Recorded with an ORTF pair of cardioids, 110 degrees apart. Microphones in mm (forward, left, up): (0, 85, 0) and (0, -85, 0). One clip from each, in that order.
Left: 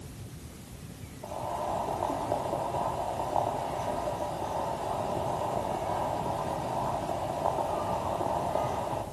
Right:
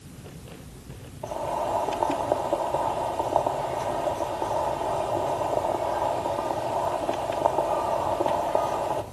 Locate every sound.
1.2 s boiling: 45° right, 3 m